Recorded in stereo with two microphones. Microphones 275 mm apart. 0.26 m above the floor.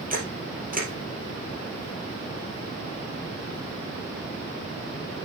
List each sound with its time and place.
0.1 s a camera shutter: 30° right (ahead or behind), 3 m